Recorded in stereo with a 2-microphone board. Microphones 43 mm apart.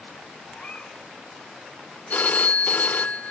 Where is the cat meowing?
35° left (ahead or behind), 2.0 m.